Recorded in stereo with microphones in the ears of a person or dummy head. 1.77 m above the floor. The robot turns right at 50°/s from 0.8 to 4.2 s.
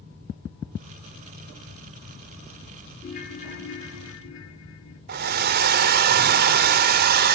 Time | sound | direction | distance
3.0 | a ringtone | 45° left | 2 m
5.1 | a hair dryer | 50° right (ahead or behind) | 0.7 m